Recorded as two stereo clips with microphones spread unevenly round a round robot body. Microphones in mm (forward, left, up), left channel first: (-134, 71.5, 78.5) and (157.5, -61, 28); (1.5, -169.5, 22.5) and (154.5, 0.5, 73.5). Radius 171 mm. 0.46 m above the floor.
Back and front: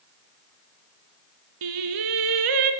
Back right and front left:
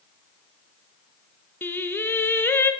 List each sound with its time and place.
1.6 s singing: 50° right, 1.3 m